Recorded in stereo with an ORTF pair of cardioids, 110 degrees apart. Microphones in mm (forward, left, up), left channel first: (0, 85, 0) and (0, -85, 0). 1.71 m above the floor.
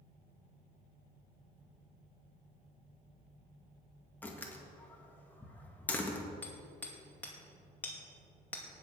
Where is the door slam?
10° left, 2 m.